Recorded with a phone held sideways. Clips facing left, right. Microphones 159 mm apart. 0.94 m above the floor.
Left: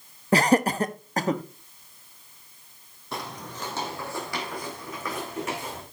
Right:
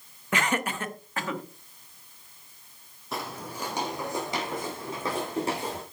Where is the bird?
No bird in this recording.